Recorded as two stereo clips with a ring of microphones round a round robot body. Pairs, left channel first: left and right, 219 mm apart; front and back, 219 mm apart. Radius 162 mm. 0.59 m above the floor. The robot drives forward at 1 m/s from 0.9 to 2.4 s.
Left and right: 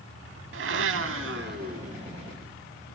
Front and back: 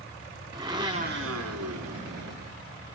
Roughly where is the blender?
Right.